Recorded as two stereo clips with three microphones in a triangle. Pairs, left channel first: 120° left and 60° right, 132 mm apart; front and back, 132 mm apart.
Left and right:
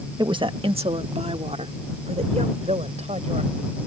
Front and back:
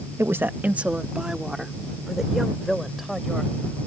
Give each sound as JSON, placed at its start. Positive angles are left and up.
{"t": 0.2, "sound": "a woman speaking", "azimuth_deg": -110}